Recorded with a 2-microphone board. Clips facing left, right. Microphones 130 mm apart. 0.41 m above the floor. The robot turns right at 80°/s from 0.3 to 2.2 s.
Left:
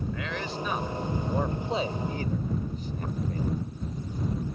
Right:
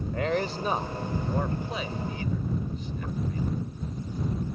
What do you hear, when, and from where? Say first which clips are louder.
0.1 s a man speaking: right 6 dB; 45° right (ahead or behind); by 3.7 s 45° left (ahead or behind)